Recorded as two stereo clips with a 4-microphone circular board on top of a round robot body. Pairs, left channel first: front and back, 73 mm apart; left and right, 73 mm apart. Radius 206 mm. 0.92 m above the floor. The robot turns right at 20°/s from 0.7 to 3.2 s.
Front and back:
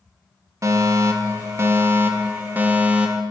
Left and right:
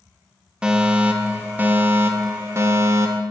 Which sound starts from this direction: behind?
A fire alarm, at 0.6 s.